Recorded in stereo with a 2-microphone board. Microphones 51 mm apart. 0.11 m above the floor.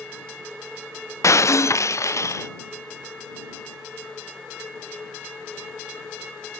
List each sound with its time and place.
1.2 s breaking glass: 80° left